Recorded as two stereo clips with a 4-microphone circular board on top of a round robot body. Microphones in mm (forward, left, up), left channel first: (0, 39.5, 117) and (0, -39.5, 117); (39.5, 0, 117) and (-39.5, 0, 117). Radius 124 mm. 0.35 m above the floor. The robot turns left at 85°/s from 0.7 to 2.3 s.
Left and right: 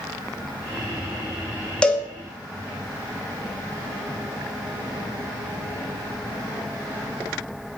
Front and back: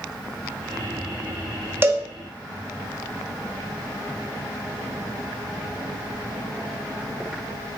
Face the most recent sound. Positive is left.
turn(degrees=115)